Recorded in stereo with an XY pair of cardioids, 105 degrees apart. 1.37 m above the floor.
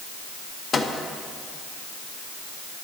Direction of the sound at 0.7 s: 45° left.